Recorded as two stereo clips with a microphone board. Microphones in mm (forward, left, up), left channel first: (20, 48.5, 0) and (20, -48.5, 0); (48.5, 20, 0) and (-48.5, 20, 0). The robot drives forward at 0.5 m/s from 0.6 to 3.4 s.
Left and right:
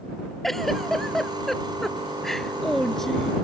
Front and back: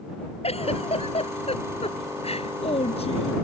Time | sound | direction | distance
0.4 | a giggle | straight ahead | ?